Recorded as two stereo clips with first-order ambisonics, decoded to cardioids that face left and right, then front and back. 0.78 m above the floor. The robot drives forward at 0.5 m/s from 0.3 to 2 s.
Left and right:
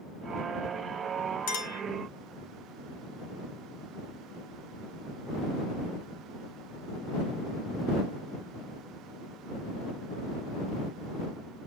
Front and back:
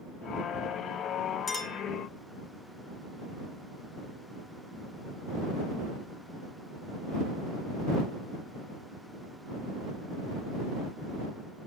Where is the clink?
80° left, 1.5 m; by 1.8 s 90° left, 1.4 m.